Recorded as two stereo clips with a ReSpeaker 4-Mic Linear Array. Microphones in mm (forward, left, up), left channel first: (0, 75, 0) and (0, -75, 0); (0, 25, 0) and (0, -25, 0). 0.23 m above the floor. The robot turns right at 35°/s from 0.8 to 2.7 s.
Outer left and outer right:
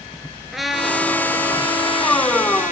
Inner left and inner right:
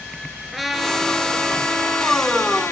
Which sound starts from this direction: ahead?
A trumpet, at 0.5 s.